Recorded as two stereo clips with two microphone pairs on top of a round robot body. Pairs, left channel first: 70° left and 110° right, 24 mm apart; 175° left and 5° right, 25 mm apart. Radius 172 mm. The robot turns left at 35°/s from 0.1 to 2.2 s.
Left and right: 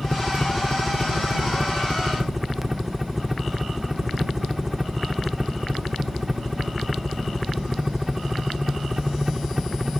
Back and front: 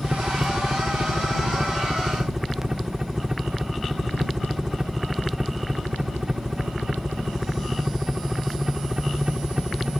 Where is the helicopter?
20° left; by 10.0 s 55° right.